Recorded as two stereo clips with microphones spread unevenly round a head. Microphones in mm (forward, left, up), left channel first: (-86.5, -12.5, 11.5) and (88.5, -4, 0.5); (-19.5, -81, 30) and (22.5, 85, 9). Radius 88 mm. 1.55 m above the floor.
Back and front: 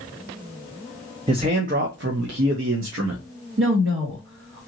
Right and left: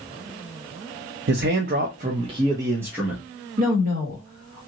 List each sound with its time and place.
1.3 s a man speaking: 65° left, 0.6 m; by 3.2 s 10° right, 1.0 m
3.6 s a woman speaking: 30° left, 1.7 m